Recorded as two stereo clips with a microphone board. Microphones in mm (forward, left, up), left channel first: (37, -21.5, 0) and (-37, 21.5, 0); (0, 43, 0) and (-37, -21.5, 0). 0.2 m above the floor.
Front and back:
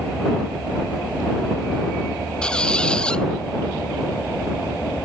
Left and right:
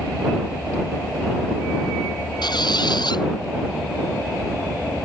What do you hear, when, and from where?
2.4 s a squeak: 50° left